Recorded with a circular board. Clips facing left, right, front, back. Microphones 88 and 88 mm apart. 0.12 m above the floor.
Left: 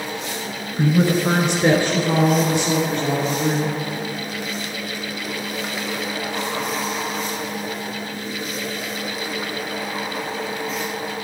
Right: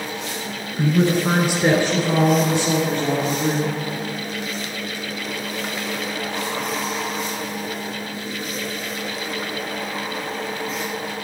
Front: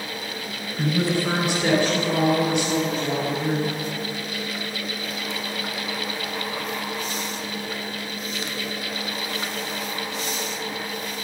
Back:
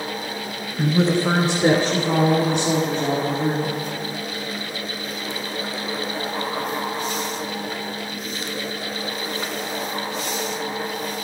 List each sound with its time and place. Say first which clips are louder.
0.8 s a woman speaking: even, back 4 dB; 135° left, 1.2 m; by 3.8 s 135° right, 3 m